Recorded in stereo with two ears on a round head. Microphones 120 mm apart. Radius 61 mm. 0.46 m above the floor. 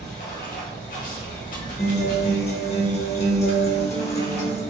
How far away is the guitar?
About 0.9 m.